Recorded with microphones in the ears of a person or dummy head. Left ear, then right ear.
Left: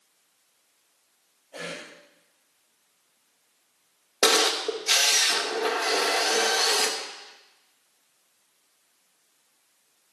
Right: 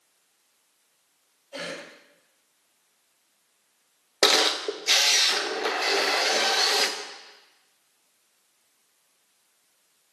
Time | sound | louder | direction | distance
1.5 | a cough | right 1 dB | 50° right (ahead or behind) | 5 m
4.2 | a camera shutter | right 1 dB | 15° right (ahead or behind) | 0.9 m